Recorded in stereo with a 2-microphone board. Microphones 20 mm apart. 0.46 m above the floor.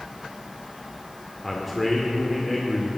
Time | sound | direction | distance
1.4 | a man speaking | 10° left (ahead or behind) | 1.5 m